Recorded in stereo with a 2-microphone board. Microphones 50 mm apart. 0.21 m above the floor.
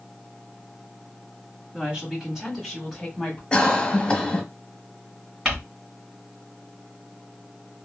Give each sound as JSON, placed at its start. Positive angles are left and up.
{"t": 1.7, "sound": "a woman speaking", "side_deg": -20, "distance_m": 1.5}
{"t": 3.5, "sound": "a cough", "side_deg": 20, "distance_m": 1.0}
{"t": 5.5, "sound": "crumpling", "side_deg": -15, "distance_m": 1.9}